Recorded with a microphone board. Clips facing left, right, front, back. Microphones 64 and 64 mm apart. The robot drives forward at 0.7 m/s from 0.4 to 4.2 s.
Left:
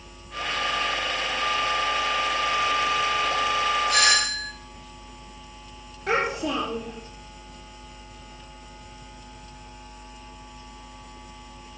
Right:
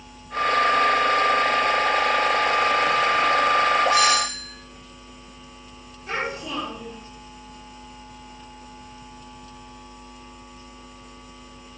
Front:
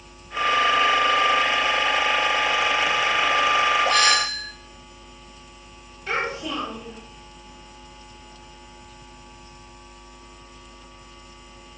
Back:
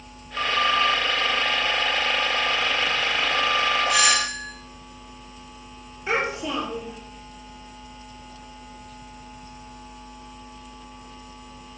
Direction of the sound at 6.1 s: 110° left.